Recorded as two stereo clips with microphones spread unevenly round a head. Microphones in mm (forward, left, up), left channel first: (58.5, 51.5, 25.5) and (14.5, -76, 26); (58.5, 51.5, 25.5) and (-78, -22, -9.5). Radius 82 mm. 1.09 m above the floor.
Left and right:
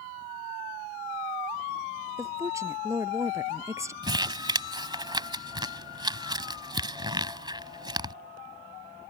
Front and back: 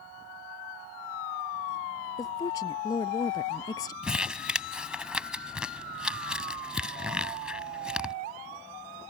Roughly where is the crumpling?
Ahead right.